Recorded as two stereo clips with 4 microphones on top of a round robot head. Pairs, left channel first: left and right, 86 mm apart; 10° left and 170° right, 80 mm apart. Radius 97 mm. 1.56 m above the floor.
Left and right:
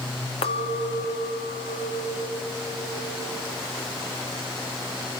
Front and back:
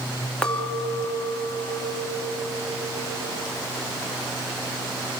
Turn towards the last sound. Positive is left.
turn(degrees=85)